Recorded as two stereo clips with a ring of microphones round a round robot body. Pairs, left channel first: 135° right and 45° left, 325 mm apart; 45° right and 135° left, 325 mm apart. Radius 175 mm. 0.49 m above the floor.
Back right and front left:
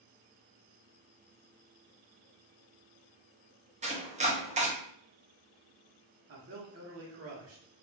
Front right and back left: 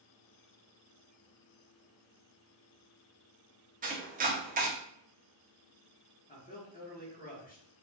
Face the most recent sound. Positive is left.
turn(degrees=15)